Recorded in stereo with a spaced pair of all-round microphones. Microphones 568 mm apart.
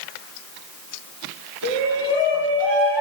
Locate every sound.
1.6 s a shout: 50° right (ahead or behind), 6.5 m; by 3.0 s 45° right (ahead or behind), 6 m